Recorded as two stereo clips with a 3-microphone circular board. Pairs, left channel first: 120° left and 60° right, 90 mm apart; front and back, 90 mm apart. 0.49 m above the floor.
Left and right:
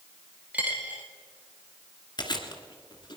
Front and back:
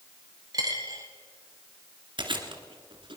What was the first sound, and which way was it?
A dropped coin, 135° right.